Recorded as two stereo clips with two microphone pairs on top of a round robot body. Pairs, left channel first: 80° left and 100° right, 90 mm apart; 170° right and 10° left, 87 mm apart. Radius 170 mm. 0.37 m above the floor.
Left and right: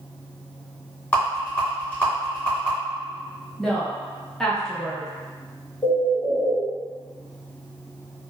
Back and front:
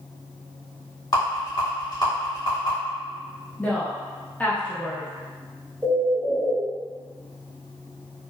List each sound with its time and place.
1.1 s a rattle: 150° left, 1.9 m
3.6 s a woman speaking: 145° left, 0.9 m
5.8 s a bird: 90° left, 1.3 m